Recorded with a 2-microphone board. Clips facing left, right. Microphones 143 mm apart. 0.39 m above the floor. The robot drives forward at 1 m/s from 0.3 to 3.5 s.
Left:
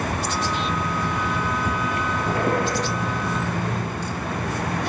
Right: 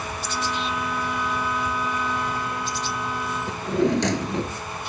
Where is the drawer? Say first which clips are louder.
Right 5 dB; 80° right.